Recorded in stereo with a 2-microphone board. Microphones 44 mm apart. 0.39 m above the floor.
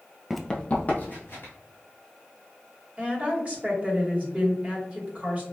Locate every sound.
0.3 s running footsteps: 5° right (ahead or behind), 0.5 m; by 1.5 s 50° left (ahead or behind), 1.9 m
3.0 s a woman speaking: 30° right (ahead or behind), 1.5 m